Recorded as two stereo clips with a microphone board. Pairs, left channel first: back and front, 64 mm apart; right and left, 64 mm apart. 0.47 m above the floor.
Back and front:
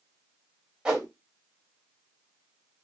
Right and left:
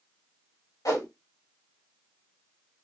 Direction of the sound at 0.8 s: 75° right.